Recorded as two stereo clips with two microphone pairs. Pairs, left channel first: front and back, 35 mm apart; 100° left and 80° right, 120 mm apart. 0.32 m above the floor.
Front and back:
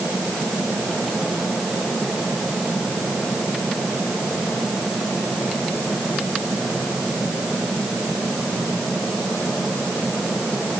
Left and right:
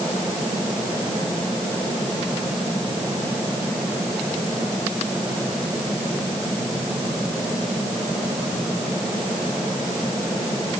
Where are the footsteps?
No footsteps in this recording.